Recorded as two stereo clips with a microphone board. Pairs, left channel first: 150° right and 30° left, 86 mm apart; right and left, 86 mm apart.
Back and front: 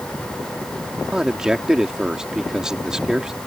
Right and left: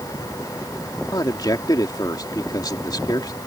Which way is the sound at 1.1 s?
55° right.